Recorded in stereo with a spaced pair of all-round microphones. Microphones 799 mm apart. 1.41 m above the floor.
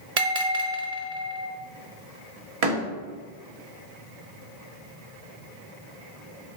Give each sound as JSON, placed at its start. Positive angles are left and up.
{"t": 0.2, "sound": "a bell", "side_deg": -50, "distance_m": 1.7}
{"t": 2.6, "sound": "a door slam", "side_deg": -45, "distance_m": 2.0}